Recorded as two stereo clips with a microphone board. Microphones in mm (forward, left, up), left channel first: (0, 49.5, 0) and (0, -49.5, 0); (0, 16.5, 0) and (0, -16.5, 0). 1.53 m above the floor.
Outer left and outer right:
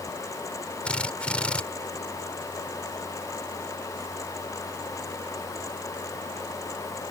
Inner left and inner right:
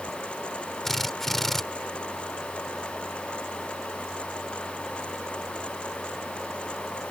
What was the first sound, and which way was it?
A drill, 10° left (ahead or behind).